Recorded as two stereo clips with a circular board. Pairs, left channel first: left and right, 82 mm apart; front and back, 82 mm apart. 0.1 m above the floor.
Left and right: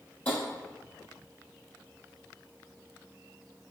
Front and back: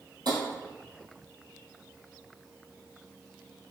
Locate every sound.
0.2 s tapping: 160° left, 1.5 m